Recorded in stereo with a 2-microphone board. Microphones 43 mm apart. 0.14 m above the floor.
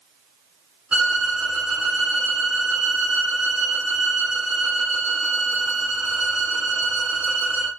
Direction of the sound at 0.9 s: 30° right (ahead or behind).